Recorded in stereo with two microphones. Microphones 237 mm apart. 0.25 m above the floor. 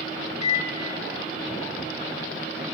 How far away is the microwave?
About 0.8 m.